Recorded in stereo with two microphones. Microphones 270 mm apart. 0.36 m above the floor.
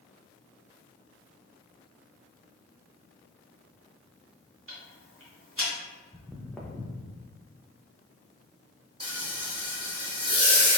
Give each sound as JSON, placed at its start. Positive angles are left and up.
{"t": 4.7, "sound": "ticking", "side_deg": -50, "distance_m": 1.3}
{"t": 6.1, "sound": "footsteps", "side_deg": -10, "distance_m": 0.6}
{"t": 9.0, "sound": "frying", "side_deg": -15, "distance_m": 1.0}